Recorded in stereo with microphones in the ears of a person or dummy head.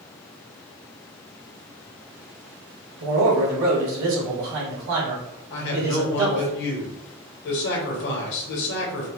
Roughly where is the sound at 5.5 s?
Left.